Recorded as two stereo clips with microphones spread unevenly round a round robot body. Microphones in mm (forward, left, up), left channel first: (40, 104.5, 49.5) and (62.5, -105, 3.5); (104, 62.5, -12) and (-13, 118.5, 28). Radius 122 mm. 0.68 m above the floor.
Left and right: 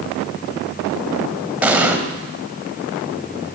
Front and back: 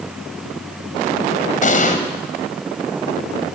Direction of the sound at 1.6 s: Straight ahead.